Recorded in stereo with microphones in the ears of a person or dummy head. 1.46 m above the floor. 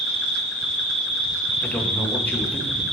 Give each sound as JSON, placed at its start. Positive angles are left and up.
{"t": 0.0, "sound": "an insect", "side_deg": 5, "distance_m": 1.0}
{"t": 1.6, "sound": "a man speaking", "side_deg": 5, "distance_m": 1.7}